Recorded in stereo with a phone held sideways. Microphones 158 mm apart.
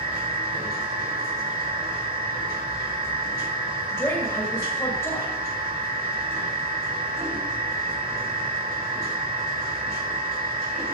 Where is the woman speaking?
20° left (ahead or behind), 2.5 m.